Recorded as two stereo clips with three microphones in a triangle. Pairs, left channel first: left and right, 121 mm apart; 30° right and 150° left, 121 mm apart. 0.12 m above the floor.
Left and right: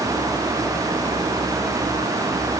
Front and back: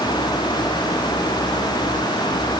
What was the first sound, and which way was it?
Only background noise.